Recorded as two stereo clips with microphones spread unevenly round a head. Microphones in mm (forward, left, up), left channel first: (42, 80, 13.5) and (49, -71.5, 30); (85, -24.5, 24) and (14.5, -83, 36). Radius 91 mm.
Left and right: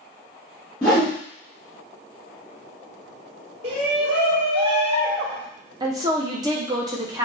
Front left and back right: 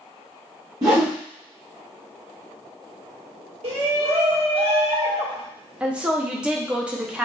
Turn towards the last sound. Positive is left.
turn(degrees=-95)